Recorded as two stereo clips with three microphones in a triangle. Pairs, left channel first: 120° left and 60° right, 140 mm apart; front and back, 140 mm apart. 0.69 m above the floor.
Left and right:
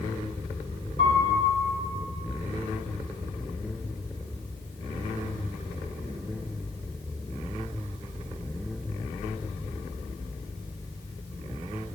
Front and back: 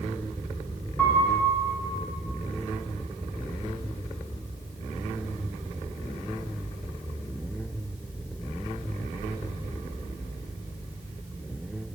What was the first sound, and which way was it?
A piano, 80° left.